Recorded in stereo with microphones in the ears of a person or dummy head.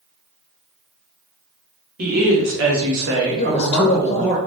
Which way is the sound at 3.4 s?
30° left (ahead or behind).